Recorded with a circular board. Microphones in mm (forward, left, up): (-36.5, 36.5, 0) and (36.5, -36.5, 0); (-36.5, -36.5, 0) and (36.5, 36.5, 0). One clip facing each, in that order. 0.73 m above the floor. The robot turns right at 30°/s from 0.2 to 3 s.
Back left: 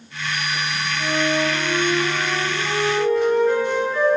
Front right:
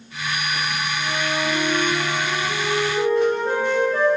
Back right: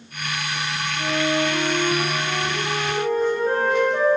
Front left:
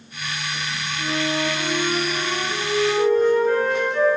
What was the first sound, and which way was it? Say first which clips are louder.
A flute: back left 6 dB, back right 2 dB; 155° right.